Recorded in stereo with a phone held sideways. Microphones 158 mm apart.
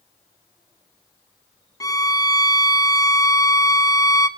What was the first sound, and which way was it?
A violin, 20° left (ahead or behind).